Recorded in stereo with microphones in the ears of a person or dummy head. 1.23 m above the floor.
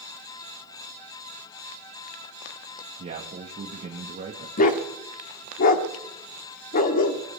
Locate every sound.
3.0 s a man speaking: 40° right (ahead or behind), 1.9 m
4.6 s a dog barking: 40° left (ahead or behind), 1.2 m